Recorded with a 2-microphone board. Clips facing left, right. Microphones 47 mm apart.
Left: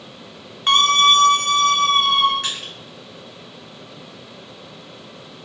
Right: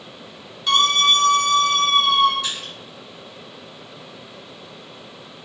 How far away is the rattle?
I don't hear a rattle.